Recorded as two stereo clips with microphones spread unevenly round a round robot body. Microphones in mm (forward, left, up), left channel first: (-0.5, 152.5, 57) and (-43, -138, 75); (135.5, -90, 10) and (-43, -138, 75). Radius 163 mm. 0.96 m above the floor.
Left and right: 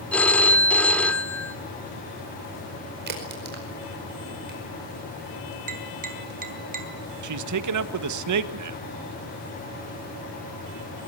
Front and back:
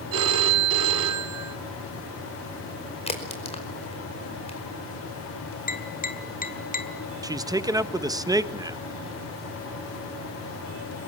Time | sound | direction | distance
0.1 | a phone ringing | 170° left | 1.6 m
3.1 | a crack | 40° right | 5 m
5.7 | tapping | 35° right | 2.5 m
7.2 | a man speaking | 85° right | 1.4 m